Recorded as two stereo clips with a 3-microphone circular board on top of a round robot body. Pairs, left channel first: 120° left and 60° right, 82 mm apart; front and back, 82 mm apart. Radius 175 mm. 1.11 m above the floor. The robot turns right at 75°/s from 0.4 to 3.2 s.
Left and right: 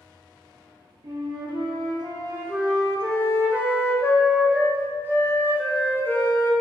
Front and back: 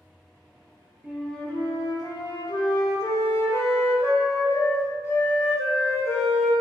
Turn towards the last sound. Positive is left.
turn(degrees=55)